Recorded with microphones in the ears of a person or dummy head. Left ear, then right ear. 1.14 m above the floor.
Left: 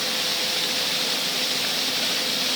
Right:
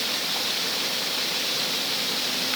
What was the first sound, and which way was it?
Only background noise.